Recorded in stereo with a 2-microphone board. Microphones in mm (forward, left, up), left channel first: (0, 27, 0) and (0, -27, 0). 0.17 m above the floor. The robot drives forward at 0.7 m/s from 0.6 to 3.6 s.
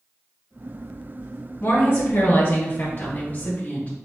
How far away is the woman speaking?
About 1.5 m.